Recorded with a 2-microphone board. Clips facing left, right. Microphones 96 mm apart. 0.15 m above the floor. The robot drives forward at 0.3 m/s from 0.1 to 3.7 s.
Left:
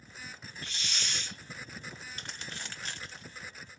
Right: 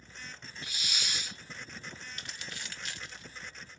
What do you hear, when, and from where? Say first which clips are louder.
0.6 s a hiss: even; 10° right (ahead or behind), 0.7 m
2.1 s crumpling: left 1 dB; 35° left (ahead or behind), 1.6 m